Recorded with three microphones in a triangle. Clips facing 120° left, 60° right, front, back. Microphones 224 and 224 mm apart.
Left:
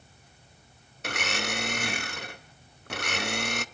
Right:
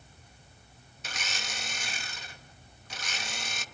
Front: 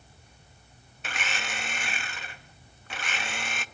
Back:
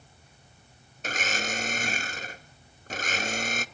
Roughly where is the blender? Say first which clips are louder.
Left 11 dB, back 5 dB; behind left.